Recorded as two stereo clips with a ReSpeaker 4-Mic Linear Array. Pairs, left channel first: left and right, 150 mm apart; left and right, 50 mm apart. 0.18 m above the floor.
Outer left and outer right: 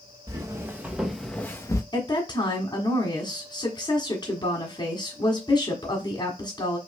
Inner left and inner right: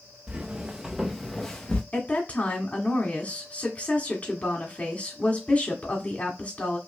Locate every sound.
0.3 s footsteps: 25° right (ahead or behind), 1.3 m; by 1.8 s 25° left (ahead or behind), 0.9 m
1.9 s a woman speaking: 30° left (ahead or behind), 1.5 m